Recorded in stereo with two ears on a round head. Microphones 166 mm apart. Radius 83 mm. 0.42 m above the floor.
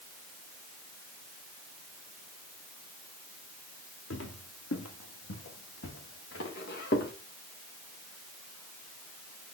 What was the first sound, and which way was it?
Footsteps, 70° left (ahead or behind).